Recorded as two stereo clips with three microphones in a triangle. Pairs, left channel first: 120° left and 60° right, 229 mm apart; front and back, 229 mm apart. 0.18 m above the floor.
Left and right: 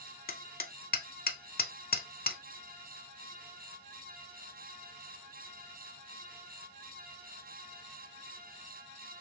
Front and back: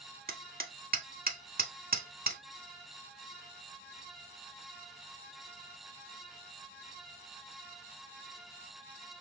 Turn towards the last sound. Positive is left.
turn(degrees=150)